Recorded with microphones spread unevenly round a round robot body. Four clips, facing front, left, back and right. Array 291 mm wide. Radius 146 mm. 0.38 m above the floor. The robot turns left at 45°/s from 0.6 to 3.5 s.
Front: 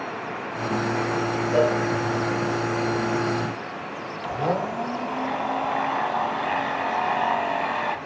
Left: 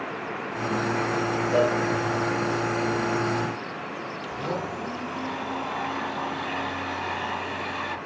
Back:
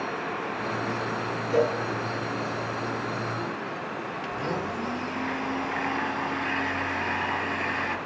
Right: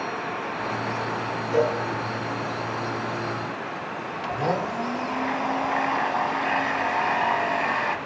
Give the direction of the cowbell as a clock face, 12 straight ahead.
9 o'clock.